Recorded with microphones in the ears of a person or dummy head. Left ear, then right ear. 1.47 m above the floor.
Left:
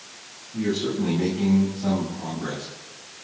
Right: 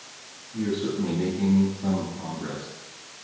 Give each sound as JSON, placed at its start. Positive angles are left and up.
{"t": 0.5, "sound": "a man speaking", "side_deg": 10, "distance_m": 10.0}